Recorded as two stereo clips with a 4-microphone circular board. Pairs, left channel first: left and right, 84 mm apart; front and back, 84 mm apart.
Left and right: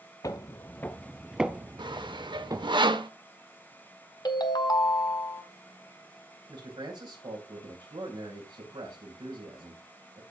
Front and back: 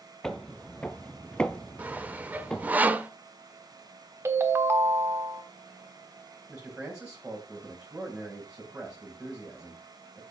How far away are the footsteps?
About 0.8 m.